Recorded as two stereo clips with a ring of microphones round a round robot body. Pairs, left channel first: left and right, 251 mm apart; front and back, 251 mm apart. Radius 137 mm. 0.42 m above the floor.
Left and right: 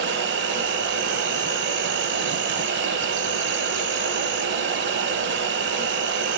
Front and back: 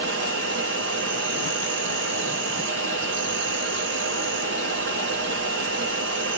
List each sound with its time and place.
0.0 s an insect: 130° right, 1.2 m